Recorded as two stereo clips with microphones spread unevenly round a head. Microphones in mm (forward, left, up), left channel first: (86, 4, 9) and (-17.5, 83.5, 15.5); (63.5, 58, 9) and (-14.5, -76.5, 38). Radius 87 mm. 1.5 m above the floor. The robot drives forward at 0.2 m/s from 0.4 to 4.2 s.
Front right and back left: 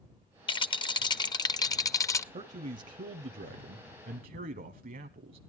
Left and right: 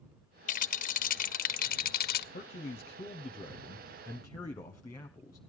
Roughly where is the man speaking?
Left.